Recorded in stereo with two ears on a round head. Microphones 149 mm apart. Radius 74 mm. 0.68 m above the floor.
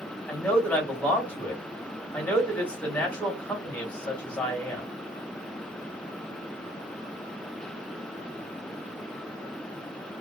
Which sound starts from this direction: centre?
A man speaking, at 0.3 s.